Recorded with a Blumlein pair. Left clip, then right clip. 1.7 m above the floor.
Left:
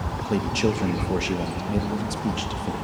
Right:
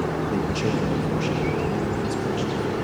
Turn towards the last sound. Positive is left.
turn(degrees=20)